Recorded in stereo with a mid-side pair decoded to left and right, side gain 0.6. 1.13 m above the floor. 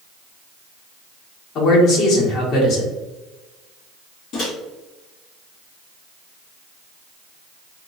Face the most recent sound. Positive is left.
turn(degrees=55)